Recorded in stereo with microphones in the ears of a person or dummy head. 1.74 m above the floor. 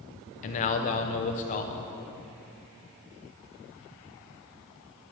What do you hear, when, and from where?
0.4 s a man speaking: 35° left (ahead or behind), 0.7 m